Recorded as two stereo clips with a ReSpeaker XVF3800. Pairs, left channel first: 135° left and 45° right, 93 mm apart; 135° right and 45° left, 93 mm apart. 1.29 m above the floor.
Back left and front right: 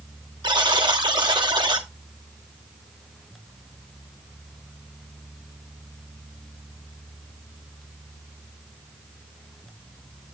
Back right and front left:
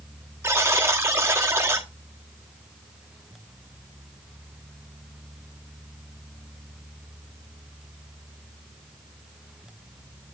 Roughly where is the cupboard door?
No cupboard door in this recording.